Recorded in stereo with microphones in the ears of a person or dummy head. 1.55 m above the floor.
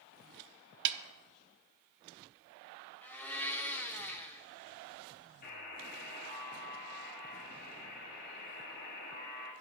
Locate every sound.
0.8 s a snare drum: 65° right (ahead or behind), 0.6 m
3.0 s a blender: 10° left (ahead or behind), 0.8 m
5.4 s a buzzer: 50° left (ahead or behind), 2 m